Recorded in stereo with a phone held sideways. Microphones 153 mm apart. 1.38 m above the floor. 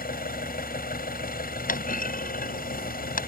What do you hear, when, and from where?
0.0 s an engine running: 80° left
1.7 s a clunk: 70° left (ahead or behind)